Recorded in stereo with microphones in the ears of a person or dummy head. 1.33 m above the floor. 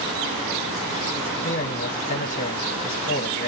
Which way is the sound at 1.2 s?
40° left (ahead or behind).